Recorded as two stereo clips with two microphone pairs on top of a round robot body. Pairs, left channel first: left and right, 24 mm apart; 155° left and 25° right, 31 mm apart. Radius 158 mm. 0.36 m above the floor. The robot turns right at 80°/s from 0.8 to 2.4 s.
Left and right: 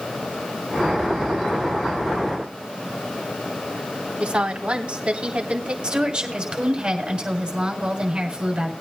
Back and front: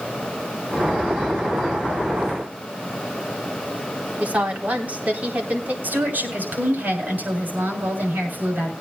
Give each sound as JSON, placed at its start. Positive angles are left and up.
{"t": 4.2, "sound": "a woman speaking", "azimuth_deg": -55, "distance_m": 4.0}
{"t": 5.8, "sound": "a woman speaking", "azimuth_deg": -40, "distance_m": 6.5}